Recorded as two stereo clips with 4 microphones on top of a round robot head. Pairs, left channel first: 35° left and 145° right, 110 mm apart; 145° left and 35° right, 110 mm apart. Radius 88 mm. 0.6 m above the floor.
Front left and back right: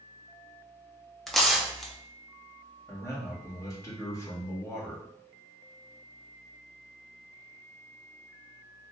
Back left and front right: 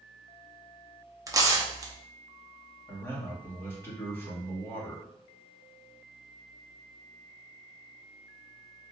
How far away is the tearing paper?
About 0.9 m.